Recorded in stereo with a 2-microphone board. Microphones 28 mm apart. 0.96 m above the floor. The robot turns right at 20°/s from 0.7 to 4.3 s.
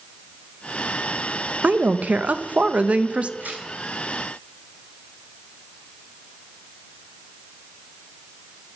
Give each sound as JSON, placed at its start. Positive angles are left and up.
{"t": 1.6, "sound": "a woman speaking", "azimuth_deg": -85, "distance_m": 0.6}
{"t": 3.4, "sound": "tearing paper", "side_deg": -85, "distance_m": 4.0}